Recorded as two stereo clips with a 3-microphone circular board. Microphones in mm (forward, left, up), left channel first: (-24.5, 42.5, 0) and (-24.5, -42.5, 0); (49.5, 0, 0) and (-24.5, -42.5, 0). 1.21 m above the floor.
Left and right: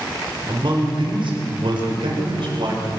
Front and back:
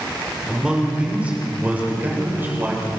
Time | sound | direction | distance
0.5 | a man speaking | 70° right | 5 m